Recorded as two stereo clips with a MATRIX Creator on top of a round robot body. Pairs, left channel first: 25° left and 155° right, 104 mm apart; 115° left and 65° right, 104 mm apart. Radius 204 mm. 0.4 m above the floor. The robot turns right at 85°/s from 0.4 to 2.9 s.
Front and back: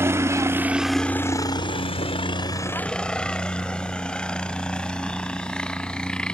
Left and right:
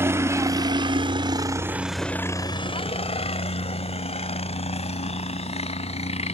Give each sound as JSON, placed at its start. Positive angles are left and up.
{"t": 0.0, "sound": "a helicopter", "azimuth_deg": -115}